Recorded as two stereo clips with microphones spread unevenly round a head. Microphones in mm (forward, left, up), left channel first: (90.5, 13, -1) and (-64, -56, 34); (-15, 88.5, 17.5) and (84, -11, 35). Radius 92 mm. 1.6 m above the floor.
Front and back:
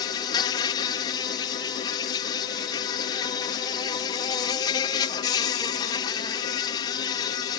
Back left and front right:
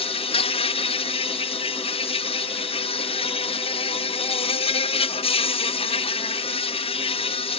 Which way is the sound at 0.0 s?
90° left.